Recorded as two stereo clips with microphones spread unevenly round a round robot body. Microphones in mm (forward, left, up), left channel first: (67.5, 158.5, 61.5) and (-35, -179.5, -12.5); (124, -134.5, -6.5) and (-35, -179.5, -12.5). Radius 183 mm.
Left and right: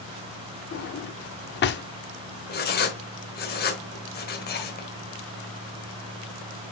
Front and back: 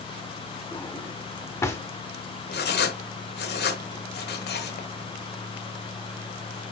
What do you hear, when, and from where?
0.7 s a drawer: 80° left, 0.6 m
2.5 s writing: 15° left, 1.5 m